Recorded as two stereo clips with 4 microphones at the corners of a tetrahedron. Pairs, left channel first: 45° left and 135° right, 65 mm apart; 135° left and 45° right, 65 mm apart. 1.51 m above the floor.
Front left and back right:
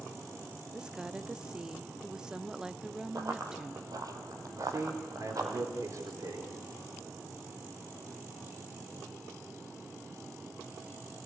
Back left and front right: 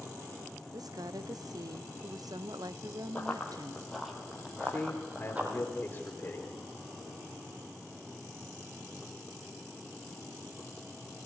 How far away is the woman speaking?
About 0.6 m.